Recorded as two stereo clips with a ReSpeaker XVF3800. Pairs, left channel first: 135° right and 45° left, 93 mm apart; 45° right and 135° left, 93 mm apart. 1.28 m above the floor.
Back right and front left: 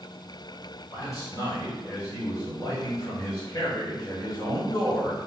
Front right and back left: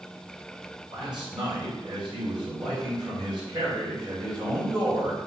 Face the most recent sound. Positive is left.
turn(degrees=170)